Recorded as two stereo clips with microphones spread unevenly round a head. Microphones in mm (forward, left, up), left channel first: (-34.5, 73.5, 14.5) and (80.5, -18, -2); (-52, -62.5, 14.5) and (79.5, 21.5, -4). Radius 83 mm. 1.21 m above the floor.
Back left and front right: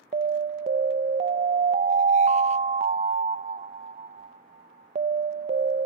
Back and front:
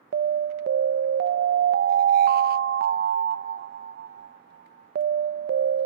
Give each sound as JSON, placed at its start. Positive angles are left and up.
{"t": 0.1, "sound": "an alarm", "azimuth_deg": 5, "distance_m": 0.5}